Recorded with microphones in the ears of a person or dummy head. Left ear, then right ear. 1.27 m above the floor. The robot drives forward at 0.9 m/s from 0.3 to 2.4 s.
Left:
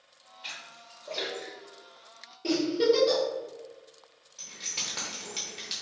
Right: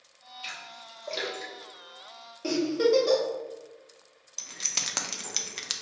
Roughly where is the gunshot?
I don't hear a gunshot.